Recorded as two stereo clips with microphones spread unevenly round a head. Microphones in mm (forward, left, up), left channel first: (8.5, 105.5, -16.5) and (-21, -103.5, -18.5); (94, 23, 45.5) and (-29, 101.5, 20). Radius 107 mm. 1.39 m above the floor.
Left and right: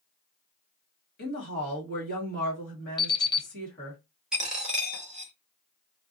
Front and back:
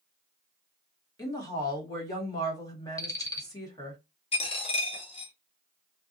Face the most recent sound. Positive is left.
turn(degrees=-10)